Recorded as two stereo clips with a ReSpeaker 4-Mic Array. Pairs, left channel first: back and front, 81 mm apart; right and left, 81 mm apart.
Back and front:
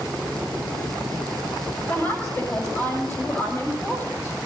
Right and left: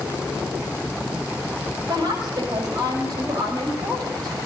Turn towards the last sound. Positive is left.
turn(degrees=125)